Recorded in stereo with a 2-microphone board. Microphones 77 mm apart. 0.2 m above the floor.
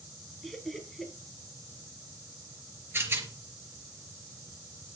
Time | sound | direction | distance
0.4 | laughter | centre (ahead or behind) | 3.5 m
2.9 | a rattle | 30° right (ahead or behind) | 3.5 m